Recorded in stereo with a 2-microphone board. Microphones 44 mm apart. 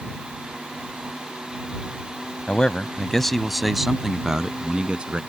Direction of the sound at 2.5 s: 25° left (ahead or behind).